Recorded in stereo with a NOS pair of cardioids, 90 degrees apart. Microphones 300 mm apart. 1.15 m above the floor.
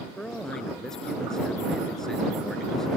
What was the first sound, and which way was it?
A man speaking, straight ahead.